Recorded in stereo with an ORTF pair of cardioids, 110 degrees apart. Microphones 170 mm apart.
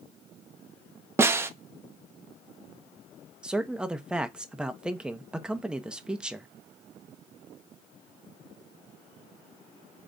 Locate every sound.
1.2 s a snare drum: 15° right, 0.6 m
3.4 s a man speaking: 5° right, 0.7 m